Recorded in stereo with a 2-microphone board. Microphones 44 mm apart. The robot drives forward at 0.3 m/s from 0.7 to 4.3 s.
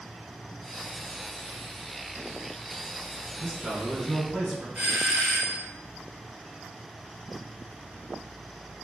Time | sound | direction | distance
3.4 | a man speaking | 5° right (ahead or behind) | 1.1 m
4.8 | a doorbell | 30° right (ahead or behind) | 1.6 m